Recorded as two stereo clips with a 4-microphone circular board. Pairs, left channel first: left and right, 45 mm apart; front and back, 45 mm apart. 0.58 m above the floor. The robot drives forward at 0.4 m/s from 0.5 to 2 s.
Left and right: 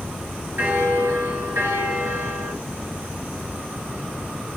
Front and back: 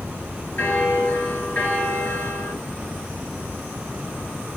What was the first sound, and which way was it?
A bell, 50° right.